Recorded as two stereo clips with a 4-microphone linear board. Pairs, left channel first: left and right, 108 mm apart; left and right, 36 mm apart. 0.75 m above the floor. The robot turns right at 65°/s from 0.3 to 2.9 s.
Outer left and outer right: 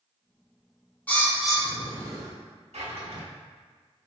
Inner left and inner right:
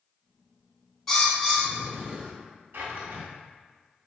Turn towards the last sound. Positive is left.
turn(degrees=-70)  # may be behind; listen again after turning